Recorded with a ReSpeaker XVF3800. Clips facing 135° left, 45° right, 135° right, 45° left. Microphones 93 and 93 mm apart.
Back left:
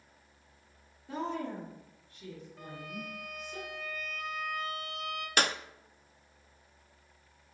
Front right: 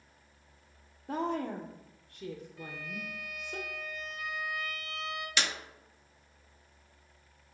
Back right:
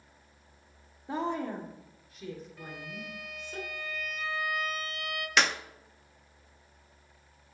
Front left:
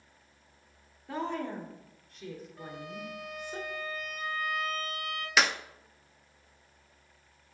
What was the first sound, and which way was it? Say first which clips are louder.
A woman speaking: front right 3 dB, back right 2 dB; 70° right.